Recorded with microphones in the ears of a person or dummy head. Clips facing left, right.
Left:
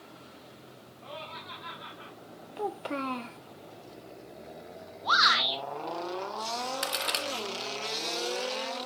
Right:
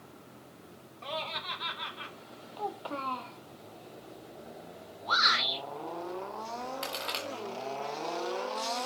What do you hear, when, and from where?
1.0 s laughter: 85° right, 3.5 m; by 2.1 s 80° right, 2.5 m
2.6 s a child speaking: 30° left (ahead or behind), 0.9 m
5.0 s a shout: 80° left, 6.5 m
6.8 s a crack: 20° left (ahead or behind), 0.9 m